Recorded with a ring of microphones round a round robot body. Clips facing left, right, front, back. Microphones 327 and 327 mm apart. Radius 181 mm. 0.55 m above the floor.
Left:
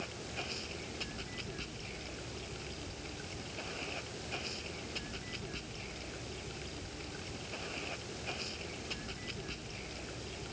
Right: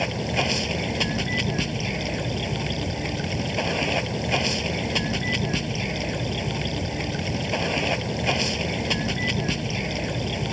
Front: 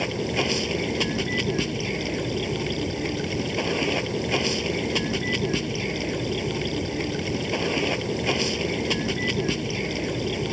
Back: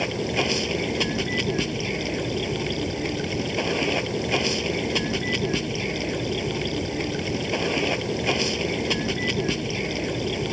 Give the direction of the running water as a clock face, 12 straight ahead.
3 o'clock.